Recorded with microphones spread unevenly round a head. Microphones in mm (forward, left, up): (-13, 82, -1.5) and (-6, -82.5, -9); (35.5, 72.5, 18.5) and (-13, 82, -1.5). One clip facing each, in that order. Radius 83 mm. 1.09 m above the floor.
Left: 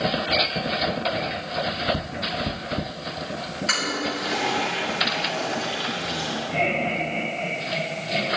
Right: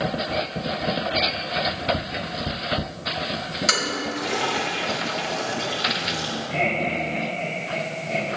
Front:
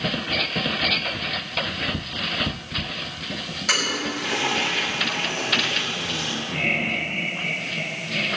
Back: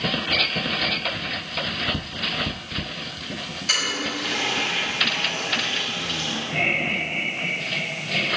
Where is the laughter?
Straight behind, 4.5 m.